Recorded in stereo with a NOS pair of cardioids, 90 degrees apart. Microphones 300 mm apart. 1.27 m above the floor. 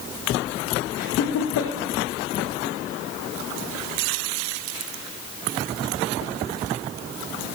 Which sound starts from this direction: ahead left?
Laughter, at 1.0 s.